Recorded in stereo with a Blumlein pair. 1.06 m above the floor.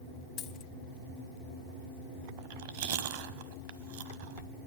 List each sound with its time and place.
0.4 s a dropped coin: 35° left, 1.4 m
2.4 s chewing: 50° right, 1.1 m